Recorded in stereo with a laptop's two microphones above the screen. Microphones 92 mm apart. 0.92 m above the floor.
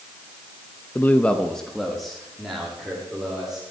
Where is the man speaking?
20° left (ahead or behind), 0.6 m; by 3.6 s 5° right (ahead or behind), 3 m.